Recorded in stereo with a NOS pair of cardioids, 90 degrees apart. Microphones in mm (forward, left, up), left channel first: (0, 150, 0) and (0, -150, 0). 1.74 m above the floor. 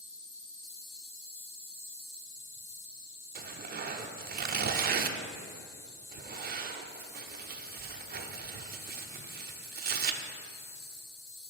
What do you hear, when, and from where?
0.0 s an insect: 45° left, 1.8 m
3.4 s tearing paper: 30° right, 0.6 m